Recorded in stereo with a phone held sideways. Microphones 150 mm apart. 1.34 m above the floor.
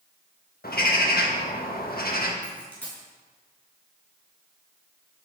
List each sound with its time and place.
0.6 s a bird: 70° left (ahead or behind), 1.5 m
2.4 s a dropped coin: 10° left (ahead or behind), 6 m